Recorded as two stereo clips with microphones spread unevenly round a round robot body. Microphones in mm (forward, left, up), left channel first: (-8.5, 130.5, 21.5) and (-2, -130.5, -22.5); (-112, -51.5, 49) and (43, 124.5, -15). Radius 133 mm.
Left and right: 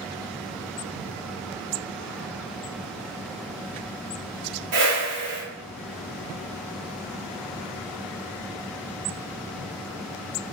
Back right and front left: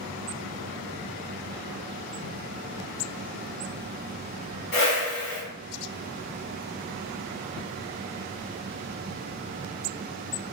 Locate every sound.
4.7 s a whoosh: 75° right, 2.5 m